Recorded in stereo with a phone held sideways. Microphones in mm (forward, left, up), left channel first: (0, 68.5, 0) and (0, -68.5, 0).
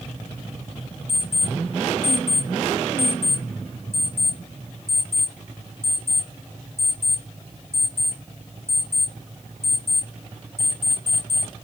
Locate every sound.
1.1 s an alarm clock: 20° right (ahead or behind), 4 m